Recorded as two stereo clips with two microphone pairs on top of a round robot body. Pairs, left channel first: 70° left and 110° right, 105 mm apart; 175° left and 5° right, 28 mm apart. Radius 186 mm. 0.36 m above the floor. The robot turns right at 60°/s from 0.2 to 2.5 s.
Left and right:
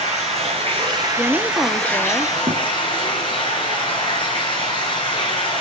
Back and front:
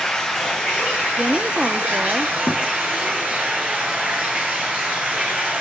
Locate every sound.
0.0 s running water: 110° right, 7.5 m; by 5.6 s 30° left, 7.5 m
1.1 s a woman speaking: 55° right, 0.8 m; by 2.4 s 20° left, 0.8 m
2.5 s a thud: 170° right, 0.8 m